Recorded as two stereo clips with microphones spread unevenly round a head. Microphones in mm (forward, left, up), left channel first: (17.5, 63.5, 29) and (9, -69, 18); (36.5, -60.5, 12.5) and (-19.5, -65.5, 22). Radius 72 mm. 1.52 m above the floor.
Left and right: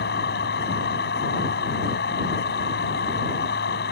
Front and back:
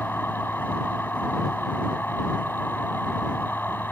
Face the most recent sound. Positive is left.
turn(degrees=85)